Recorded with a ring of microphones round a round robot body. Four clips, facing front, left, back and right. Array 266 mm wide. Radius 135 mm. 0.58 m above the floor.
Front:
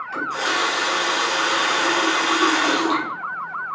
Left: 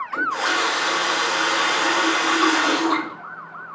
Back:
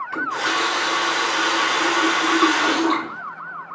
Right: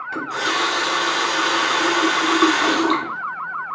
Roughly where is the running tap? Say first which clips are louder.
Left 1 dB, even; right.